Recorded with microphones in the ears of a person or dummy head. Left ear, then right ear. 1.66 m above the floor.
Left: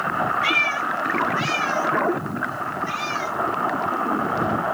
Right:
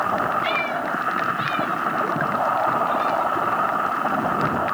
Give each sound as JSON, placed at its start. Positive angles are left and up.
{"t": 0.4, "sound": "a cat meowing", "side_deg": 35}